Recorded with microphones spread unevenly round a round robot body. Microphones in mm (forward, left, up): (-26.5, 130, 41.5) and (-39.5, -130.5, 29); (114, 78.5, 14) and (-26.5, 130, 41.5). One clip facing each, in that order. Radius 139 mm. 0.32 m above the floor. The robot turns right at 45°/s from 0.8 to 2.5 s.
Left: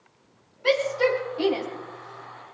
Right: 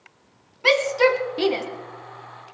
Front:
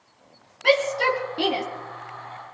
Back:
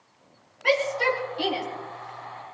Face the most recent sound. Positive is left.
turn(degrees=-5)